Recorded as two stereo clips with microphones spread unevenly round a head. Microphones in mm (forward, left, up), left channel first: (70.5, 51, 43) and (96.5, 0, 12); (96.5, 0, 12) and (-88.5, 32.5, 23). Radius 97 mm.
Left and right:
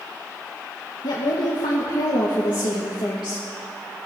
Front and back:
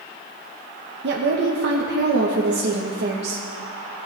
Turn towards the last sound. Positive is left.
turn(degrees=150)